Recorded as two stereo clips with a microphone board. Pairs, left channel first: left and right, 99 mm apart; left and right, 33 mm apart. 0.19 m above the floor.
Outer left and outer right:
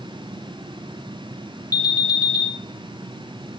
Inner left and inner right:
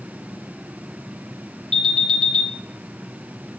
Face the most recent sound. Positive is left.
turn(degrees=35)  # may be behind; listen again after turning